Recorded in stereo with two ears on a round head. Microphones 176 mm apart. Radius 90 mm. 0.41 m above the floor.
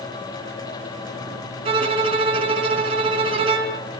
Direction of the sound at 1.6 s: 25° right (ahead or behind).